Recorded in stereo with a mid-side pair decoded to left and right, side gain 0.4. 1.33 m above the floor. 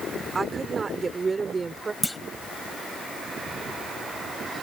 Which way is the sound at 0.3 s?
40° right.